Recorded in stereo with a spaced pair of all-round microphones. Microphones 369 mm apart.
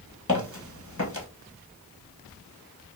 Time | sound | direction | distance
0.3 | footsteps | 40° left (ahead or behind) | 1.6 m